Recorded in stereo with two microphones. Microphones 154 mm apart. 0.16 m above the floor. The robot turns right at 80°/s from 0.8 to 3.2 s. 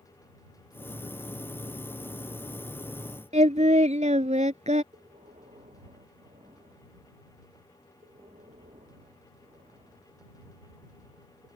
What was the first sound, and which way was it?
Singing, 50° right (ahead or behind).